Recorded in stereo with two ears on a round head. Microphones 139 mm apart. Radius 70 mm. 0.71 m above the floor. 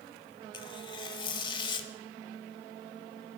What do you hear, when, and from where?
0.5 s tearing paper: 30° left (ahead or behind), 1.1 m